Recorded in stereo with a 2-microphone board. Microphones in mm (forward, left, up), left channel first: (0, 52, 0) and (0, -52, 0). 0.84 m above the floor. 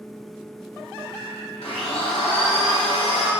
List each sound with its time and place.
1.6 s a blender: 80° left, 2.5 m